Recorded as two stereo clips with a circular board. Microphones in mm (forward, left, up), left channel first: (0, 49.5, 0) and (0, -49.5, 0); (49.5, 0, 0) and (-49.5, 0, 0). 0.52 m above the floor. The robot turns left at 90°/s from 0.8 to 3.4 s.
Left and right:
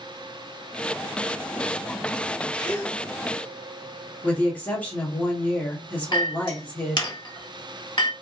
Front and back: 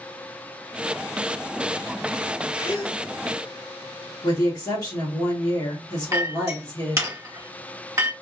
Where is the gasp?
50° left, 1.4 m; by 3.0 s 15° left, 1.4 m.